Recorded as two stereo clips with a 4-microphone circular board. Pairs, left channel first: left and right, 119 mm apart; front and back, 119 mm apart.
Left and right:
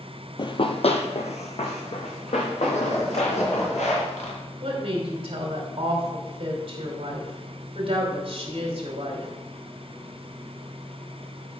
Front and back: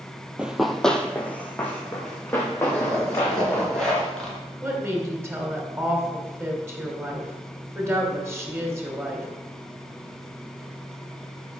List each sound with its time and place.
0.4 s running footsteps: 105° left, 0.7 m; by 3.7 s 70° left, 4 m
2.7 s a zipper: 85° left, 3 m
4.6 s a woman speaking: 115° right, 2.5 m